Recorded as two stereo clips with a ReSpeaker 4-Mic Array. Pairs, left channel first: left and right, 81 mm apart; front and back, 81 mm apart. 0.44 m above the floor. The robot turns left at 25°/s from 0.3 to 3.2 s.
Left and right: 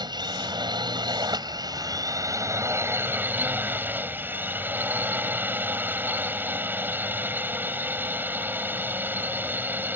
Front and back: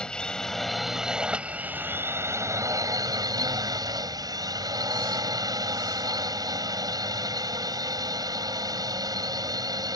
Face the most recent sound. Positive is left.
turn(degrees=-150)